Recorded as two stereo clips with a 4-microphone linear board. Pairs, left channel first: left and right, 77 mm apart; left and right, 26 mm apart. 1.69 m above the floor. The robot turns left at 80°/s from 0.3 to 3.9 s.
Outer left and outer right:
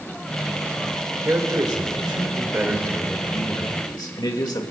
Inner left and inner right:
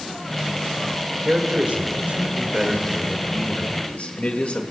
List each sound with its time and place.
1.2 s a man speaking: 35° right, 1.9 m; by 4.6 s 110° left, 1.9 m